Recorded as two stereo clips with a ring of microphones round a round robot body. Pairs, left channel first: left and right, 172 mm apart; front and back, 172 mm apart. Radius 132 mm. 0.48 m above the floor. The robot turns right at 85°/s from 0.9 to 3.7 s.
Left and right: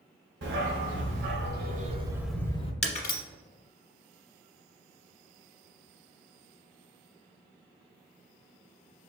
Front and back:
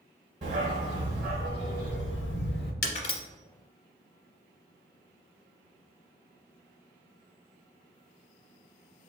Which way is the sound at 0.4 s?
120° right.